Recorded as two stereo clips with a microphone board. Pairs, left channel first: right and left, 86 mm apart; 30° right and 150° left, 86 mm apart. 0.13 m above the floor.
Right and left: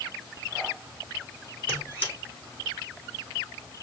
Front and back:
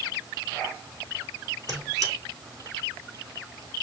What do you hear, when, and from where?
1.7 s a squeak: 160° right, 4.5 m